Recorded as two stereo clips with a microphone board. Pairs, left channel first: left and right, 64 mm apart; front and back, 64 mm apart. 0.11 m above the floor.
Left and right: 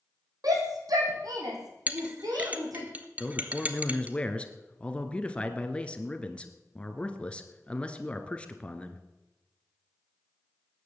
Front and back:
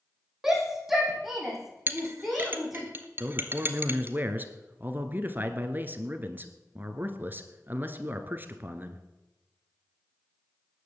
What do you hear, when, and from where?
0.4 s a shout: 95° right, 4.5 m
1.9 s a clink: 145° right, 1.2 m
3.2 s a man speaking: 145° left, 1.5 m